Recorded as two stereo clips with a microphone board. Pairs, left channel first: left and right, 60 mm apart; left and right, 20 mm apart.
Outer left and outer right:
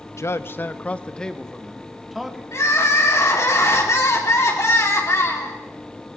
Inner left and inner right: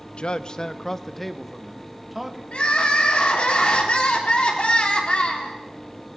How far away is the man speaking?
About 0.9 m.